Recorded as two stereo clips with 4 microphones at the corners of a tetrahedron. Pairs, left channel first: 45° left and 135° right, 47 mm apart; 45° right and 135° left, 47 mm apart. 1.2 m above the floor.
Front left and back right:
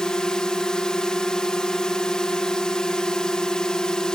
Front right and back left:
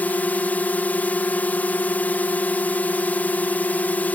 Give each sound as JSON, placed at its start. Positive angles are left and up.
{"t": 0.0, "sound": "a drone", "azimuth_deg": -15}